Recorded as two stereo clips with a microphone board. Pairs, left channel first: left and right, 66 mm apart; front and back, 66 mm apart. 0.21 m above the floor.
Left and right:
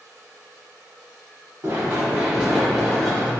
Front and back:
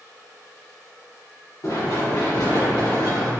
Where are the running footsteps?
30° right, 1.5 m; by 3.3 s 10° left, 1.4 m.